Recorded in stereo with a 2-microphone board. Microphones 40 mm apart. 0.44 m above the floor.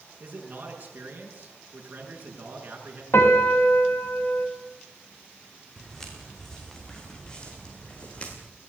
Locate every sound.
0.2 s a man speaking: 40° right (ahead or behind), 6.5 m
3.1 s a piano: 70° left (ahead or behind), 2.5 m
5.8 s footsteps: 5° left (ahead or behind), 7 m; by 8.4 s 30° left (ahead or behind), 6 m